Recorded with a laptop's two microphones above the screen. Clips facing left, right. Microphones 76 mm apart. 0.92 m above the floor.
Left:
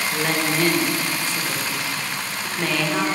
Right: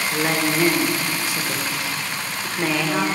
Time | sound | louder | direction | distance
0.1 | a woman speaking | right 2 dB | 10° right (ahead or behind) | 1.2 m